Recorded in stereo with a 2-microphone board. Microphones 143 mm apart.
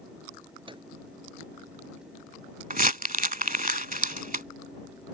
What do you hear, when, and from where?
0.7 s a microwave: 35° right (ahead or behind)
2.7 s crumpling: 65° right (ahead or behind)